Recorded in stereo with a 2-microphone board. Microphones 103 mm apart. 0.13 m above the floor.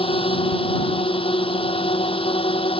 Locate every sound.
0.0 s a drone: 70° left (ahead or behind); by 2.8 s 75° left (ahead or behind)